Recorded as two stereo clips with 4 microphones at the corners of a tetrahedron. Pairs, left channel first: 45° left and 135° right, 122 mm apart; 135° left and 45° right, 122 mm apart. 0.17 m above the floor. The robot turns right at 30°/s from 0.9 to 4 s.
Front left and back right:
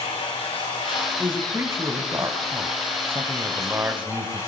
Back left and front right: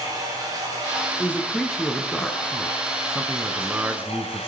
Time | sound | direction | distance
0.0 | running water | 15° left | 8.5 m
1.2 | a man speaking | 170° right | 1.5 m